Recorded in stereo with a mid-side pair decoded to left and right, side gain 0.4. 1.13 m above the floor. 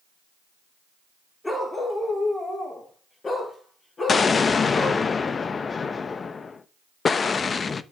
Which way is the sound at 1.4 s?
20° left.